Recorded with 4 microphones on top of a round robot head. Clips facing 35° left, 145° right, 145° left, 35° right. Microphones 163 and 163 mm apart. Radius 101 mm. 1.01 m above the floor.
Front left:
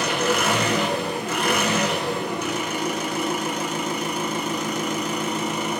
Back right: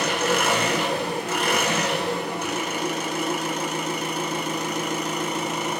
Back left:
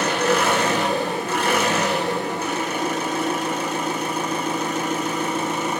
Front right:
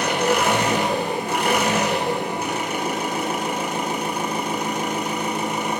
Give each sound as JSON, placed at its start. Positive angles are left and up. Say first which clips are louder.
{"t": 0.0, "sound": "an engine running", "louder": "front left 1 dB, even", "azimuth_deg": 40, "distance_m": 6.0}